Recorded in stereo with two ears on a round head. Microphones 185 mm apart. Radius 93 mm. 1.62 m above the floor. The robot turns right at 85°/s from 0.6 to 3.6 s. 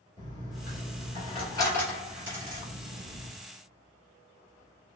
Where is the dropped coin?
30° left (ahead or behind), 1.3 m; by 3.3 s 35° right (ahead or behind), 1.3 m.